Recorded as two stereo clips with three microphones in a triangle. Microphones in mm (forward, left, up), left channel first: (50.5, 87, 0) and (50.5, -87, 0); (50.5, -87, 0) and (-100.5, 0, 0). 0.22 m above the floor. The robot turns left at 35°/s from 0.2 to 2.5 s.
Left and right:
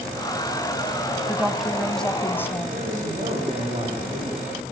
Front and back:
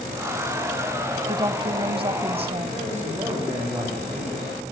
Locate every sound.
1.3 s a woman speaking: 160° right, 1.4 m; by 2.9 s 155° left, 1.4 m
2.7 s a man speaking: 135° right, 9 m